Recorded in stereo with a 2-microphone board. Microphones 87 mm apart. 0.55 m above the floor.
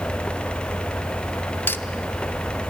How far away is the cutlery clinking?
About 0.6 m.